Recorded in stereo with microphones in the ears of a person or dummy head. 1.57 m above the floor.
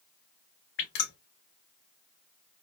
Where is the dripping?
65° left (ahead or behind), 2 m.